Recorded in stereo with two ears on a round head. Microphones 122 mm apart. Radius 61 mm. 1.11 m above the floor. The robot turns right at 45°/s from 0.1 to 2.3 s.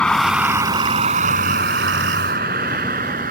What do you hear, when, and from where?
0.0 s a vehicle: 5° left (ahead or behind); by 3.3 s 65° right (ahead or behind)